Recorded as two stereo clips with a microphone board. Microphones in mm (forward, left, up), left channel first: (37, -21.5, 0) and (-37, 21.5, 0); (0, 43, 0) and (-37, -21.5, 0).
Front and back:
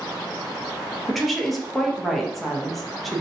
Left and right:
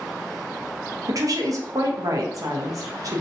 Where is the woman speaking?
120° right, 0.6 m.